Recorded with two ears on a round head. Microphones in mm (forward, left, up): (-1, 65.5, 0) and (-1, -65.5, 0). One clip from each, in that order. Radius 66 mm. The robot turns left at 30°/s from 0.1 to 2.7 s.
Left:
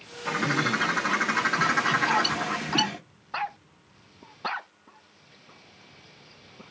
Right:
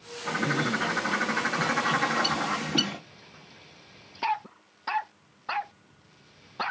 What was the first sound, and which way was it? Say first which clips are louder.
A bird: left 2 dB; 60° left.